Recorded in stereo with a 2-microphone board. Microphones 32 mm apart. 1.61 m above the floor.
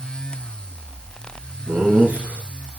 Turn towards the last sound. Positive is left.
turn(degrees=-65)  # may be behind; listen again after turning